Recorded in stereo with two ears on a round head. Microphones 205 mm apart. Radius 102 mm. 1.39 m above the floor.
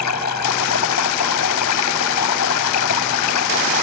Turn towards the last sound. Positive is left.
turn(degrees=85)